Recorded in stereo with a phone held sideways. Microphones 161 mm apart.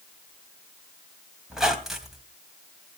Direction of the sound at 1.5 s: Centre (ahead or behind).